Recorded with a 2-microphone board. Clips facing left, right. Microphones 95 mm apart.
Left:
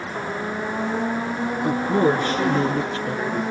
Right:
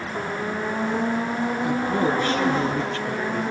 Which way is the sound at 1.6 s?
30° left (ahead or behind).